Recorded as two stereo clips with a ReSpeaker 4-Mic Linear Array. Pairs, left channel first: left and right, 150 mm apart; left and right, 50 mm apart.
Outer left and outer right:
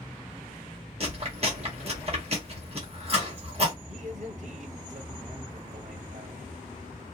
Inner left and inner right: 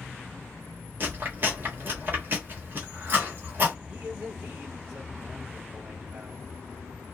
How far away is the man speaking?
About 1.0 m.